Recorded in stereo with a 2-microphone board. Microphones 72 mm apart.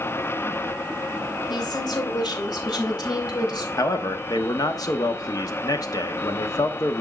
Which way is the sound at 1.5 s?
70° left (ahead or behind).